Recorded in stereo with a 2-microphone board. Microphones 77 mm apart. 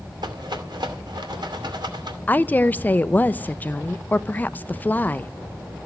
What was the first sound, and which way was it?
A rattle, 75° right (ahead or behind).